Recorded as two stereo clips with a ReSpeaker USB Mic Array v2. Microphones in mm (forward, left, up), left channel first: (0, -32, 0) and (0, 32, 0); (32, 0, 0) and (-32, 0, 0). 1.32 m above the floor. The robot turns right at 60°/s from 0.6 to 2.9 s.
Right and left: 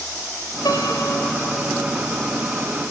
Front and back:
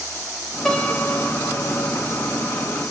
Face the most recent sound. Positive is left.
turn(degrees=55)